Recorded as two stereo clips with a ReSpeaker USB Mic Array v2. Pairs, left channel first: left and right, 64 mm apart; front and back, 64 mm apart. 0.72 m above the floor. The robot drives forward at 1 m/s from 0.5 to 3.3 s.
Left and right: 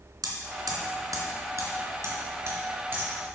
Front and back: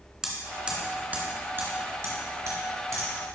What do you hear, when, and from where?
0.2 s hammering: 100° right, 2 m; by 3.1 s 145° right, 3.5 m